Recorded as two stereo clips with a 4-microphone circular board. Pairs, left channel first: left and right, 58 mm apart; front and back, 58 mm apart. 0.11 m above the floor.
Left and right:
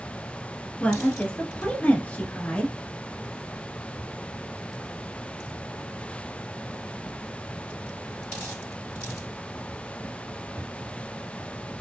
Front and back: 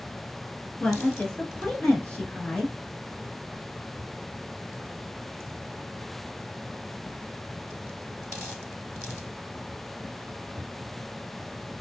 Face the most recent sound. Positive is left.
turn(degrees=45)